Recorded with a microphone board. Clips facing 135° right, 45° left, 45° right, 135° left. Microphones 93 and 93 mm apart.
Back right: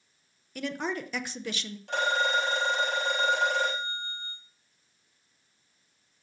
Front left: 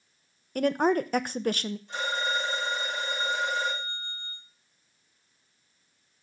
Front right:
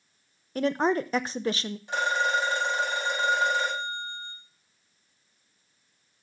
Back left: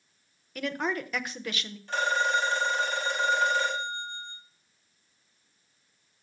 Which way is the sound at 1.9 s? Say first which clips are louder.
Back right 5 dB, even; 120° right.